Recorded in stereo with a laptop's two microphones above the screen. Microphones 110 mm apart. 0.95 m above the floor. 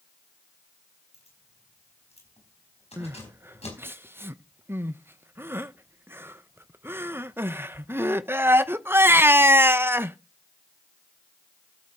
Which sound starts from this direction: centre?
Crying, at 3.0 s.